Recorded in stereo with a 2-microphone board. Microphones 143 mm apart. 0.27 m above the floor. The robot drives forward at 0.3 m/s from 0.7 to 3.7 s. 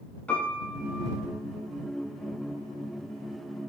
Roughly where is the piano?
Centre.